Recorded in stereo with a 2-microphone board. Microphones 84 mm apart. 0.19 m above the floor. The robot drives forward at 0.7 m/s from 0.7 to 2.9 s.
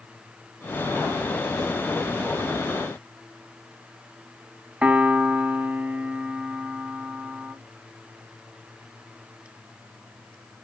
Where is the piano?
15° right (ahead or behind), 0.6 m.